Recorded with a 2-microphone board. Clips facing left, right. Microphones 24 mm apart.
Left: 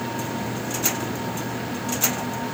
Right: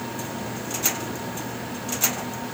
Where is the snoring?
I don't hear snoring.